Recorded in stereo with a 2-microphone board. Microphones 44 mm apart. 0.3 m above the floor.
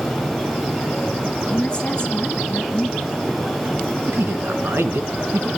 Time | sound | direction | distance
1.5 | a woman speaking | 25° left (ahead or behind) | 5 m
4.1 | a man speaking | 65° right (ahead or behind) | 3 m